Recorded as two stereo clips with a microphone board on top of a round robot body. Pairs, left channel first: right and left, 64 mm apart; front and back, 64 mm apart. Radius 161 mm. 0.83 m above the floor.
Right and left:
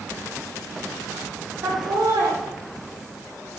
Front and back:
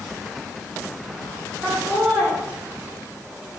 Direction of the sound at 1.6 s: 105° left.